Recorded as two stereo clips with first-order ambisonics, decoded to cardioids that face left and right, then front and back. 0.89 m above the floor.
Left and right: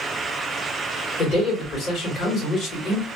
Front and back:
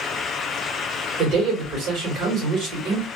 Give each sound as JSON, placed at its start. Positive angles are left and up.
{"t": 1.2, "sound": "a man speaking", "azimuth_deg": 145, "distance_m": 1.5}